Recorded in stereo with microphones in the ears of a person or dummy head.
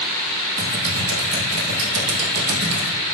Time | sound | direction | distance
0.6 | typing on a keyboard | 35° right (ahead or behind) | 1.1 m